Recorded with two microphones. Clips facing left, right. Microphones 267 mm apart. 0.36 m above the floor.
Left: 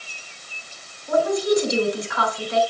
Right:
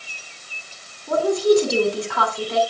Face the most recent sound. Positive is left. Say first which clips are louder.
# right 3 dB
turn(degrees=-70)  # may be behind; listen again after turning